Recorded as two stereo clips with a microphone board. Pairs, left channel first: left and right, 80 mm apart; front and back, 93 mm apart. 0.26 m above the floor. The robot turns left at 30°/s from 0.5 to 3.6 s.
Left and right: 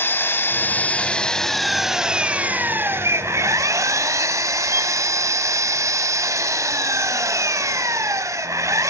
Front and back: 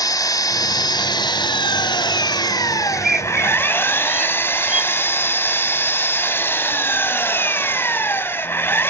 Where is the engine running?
35° left, 0.8 m; by 8.9 s 60° right, 0.8 m.